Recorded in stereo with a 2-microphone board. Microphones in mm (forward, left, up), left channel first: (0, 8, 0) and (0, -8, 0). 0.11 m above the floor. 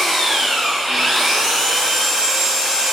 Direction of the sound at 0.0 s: 55° right (ahead or behind).